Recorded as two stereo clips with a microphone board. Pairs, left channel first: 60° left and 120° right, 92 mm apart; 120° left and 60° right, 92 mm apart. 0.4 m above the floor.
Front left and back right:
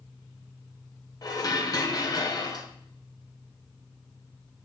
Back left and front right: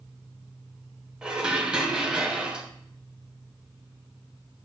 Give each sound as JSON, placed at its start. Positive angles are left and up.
{"t": 1.2, "sound": "dishes clattering", "azimuth_deg": 20, "distance_m": 1.4}